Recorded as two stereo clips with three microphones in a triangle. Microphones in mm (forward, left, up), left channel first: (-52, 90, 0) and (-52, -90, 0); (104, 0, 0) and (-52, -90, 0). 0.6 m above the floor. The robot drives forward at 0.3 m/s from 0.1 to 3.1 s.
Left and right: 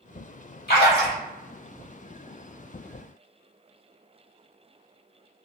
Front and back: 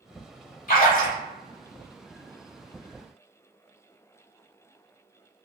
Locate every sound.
0.7 s a splash: 65° left, 0.9 m; by 1.2 s 75° left, 0.9 m